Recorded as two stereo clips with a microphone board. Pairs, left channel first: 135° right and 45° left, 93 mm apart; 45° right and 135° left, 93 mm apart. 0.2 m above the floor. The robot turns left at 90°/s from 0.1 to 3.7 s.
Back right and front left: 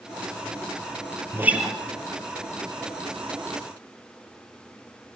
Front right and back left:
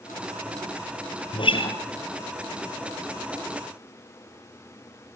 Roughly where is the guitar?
Ahead.